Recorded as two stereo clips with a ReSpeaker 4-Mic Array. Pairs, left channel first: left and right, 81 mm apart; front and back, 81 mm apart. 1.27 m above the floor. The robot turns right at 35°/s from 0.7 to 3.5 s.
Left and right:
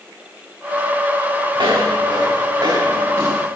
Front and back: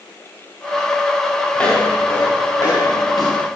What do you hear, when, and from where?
1.6 s footsteps: 80° right, 6 m; by 3.5 s 20° right, 6 m